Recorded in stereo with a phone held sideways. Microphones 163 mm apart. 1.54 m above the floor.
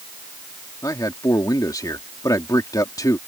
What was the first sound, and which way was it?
A man speaking, 20° left (ahead or behind).